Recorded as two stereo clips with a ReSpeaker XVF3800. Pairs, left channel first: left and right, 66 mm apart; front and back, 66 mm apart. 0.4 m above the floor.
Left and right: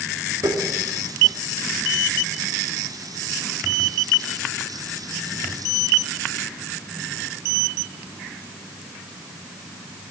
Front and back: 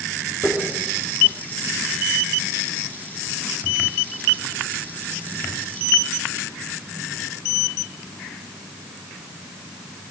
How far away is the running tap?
About 4.5 m.